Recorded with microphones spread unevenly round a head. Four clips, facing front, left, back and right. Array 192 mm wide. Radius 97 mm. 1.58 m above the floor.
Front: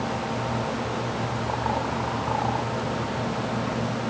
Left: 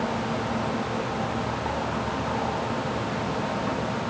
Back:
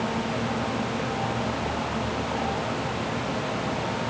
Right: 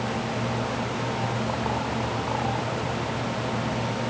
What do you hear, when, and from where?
Only background noise.